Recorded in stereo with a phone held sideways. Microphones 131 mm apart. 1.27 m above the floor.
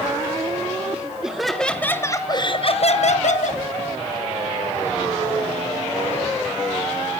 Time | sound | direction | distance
0.9 | laughter | 10° right (ahead or behind) | 1.8 m